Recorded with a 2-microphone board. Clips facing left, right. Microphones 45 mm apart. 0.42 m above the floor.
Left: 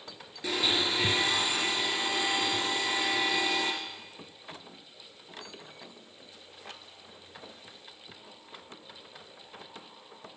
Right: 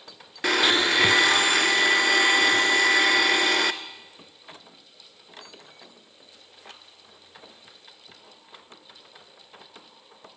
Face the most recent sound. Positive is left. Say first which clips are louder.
# right 8 dB
turn(degrees=-80)